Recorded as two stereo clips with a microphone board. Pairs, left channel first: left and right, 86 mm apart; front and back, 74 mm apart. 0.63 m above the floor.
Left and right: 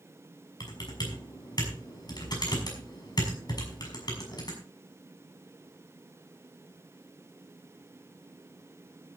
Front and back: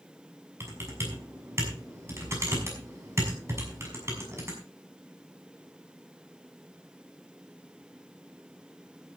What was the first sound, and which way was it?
Typing on a keyboard, 125° left.